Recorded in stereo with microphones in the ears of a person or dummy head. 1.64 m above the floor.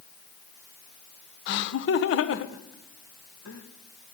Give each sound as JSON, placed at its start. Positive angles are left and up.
{"t": 1.5, "sound": "laughter", "side_deg": 70, "distance_m": 0.8}